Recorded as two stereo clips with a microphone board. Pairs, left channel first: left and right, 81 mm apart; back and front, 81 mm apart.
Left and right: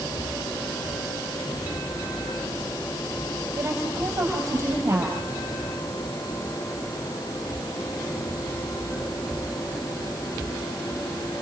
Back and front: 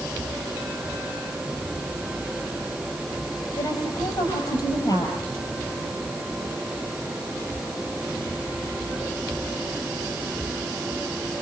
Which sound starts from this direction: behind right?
A woman speaking, at 3.6 s.